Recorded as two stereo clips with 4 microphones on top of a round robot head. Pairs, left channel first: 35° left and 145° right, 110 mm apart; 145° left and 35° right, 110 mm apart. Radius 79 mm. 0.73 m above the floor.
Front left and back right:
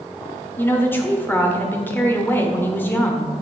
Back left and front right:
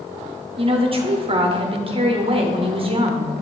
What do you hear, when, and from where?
0.6 s a woman speaking: 30° right, 1.1 m